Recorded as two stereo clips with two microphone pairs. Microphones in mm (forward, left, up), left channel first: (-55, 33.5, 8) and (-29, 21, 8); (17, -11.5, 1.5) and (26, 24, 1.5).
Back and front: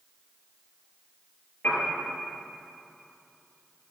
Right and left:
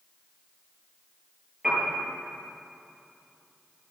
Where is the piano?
150° left, 5 m.